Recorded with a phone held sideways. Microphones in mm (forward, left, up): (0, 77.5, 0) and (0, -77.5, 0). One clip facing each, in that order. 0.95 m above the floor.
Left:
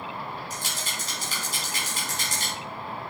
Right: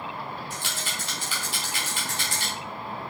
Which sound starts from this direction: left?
A rattle, at 0.5 s.